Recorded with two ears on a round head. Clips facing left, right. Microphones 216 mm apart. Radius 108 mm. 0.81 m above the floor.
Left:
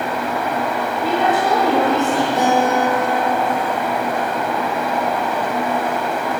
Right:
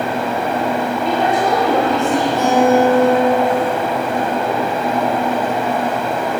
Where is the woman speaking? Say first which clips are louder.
Even; 5° left (ahead or behind), 1.8 m.